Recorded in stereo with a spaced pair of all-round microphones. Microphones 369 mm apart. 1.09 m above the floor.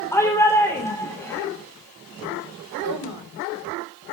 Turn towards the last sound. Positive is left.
turn(degrees=-80)